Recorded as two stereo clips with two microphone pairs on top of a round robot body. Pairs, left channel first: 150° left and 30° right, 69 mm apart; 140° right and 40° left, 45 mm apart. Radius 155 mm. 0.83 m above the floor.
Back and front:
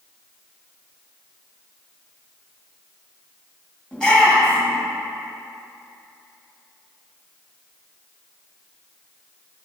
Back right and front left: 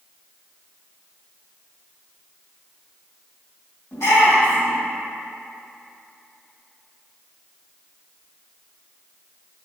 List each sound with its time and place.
3.9 s a shout: 135° right, 2 m